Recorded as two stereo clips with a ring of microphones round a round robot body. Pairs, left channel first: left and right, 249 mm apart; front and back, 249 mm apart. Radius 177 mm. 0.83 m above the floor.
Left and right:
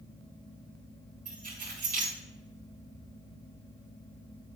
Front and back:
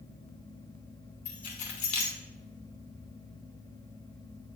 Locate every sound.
1.2 s keys jangling: 20° right, 2 m